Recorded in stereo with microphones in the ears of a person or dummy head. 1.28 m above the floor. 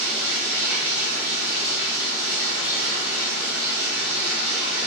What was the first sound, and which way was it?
Running water, 30° left (ahead or behind).